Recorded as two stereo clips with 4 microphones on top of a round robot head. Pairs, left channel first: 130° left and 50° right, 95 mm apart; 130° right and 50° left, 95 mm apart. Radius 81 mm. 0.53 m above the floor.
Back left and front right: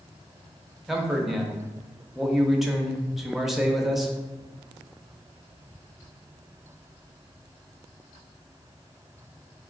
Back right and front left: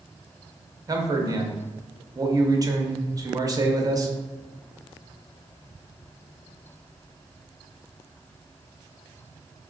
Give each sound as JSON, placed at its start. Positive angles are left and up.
{"t": 0.9, "sound": "a man speaking", "azimuth_deg": 40, "distance_m": 0.9}